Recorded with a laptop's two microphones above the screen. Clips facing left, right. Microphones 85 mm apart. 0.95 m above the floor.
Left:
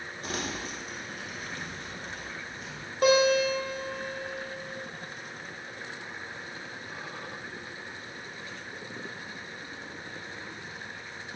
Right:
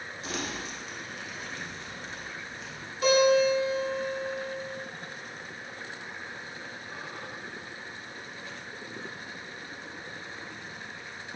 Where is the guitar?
45° left (ahead or behind), 0.7 m.